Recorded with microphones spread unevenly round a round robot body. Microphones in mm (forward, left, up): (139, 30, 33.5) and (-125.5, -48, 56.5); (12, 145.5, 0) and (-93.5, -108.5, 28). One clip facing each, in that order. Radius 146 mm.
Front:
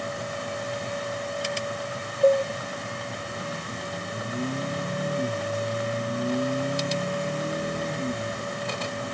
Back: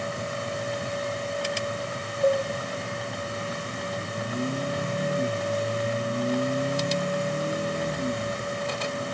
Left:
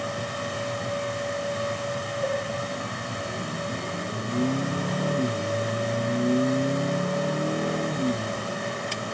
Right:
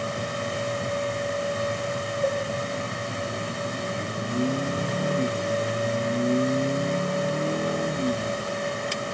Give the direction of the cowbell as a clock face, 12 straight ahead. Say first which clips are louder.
Front 4 dB, right 2 dB; 9 o'clock.